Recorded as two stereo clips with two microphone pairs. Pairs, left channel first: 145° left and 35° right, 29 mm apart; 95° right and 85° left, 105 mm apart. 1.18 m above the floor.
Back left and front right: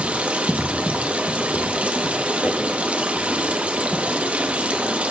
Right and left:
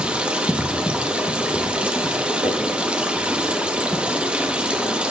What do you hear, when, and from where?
0.0 s running water: 5° left, 0.9 m
2.4 s knocking: 135° left, 4.5 m